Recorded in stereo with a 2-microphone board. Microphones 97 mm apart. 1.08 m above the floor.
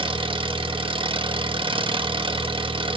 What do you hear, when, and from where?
0.0 s an engine running: 65° right (ahead or behind), 1.1 m